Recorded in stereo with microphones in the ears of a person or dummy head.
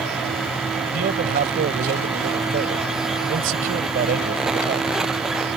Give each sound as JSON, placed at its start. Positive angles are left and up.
{"t": 0.9, "sound": "a man speaking", "side_deg": -55}